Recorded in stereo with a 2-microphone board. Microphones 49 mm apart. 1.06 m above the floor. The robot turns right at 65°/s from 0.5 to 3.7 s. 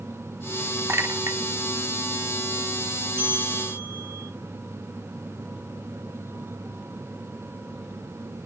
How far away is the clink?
About 1.2 m.